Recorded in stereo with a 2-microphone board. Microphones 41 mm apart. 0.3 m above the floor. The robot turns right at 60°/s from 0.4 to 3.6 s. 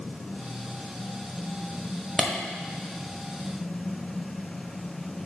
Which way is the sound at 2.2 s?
5° right (ahead or behind).